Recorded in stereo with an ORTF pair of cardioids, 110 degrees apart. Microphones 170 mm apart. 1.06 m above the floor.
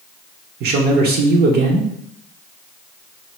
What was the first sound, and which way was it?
A man speaking, 70° right.